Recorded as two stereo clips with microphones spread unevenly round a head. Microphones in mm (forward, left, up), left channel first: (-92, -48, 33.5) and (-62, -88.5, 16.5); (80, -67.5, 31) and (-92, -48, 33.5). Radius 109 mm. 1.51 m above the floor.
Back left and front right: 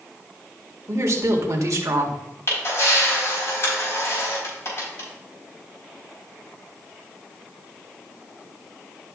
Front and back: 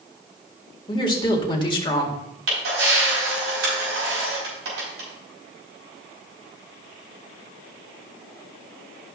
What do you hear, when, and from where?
0.9 s a woman speaking: 70° right, 1.9 m
2.5 s a camera shutter: 165° left, 4.5 m